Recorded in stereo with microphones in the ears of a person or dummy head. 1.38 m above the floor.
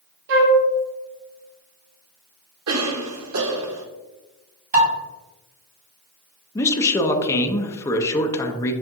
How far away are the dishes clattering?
About 2 m.